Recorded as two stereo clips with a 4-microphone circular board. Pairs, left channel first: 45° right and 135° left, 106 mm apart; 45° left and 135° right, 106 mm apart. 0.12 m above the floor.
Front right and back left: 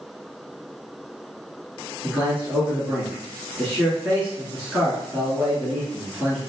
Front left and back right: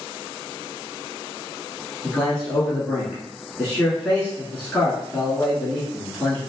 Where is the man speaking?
110° left, 1.1 m.